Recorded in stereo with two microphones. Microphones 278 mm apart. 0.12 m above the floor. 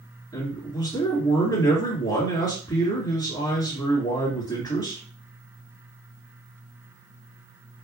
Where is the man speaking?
15° left (ahead or behind), 1.9 m.